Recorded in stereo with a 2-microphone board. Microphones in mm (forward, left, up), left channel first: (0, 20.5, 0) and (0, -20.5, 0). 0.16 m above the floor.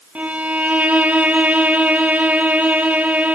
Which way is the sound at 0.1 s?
40° right (ahead or behind).